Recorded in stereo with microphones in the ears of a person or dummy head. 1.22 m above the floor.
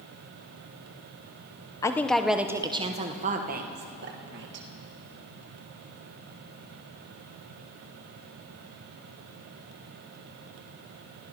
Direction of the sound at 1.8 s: 15° left (ahead or behind).